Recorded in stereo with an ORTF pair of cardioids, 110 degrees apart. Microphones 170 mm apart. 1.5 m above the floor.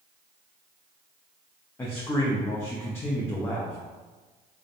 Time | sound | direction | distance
1.8 | a man speaking | 15° left | 0.5 m